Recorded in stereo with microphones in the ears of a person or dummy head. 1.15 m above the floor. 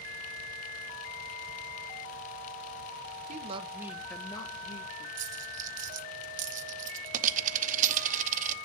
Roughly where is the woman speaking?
Right.